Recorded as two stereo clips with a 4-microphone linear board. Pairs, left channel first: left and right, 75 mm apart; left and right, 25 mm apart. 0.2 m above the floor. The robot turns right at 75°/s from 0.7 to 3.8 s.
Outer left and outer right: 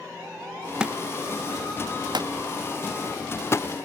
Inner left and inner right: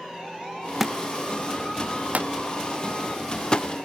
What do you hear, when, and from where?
0.8 s a thud: 10° right (ahead or behind); by 3.7 s 45° left (ahead or behind)